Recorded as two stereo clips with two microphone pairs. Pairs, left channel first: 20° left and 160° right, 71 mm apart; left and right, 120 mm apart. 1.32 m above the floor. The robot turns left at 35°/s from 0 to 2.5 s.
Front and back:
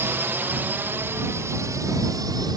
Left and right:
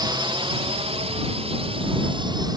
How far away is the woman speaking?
No woman speaking in this recording.